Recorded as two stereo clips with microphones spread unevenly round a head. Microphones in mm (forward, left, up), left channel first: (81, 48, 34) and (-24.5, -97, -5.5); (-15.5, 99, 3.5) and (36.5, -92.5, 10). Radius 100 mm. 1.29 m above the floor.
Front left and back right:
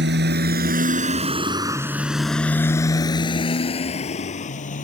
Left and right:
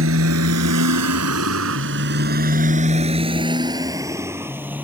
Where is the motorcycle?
100° right; by 4.8 s 5° left.